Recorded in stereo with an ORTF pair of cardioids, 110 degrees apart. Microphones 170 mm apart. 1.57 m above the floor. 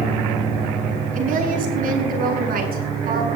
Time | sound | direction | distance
1.1 | a woman speaking | 55° right | 9 m